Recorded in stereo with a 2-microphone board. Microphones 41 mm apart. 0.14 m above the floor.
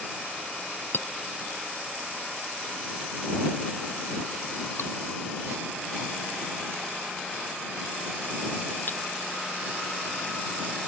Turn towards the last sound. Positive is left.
turn(degrees=50)  # may be behind; listen again after turning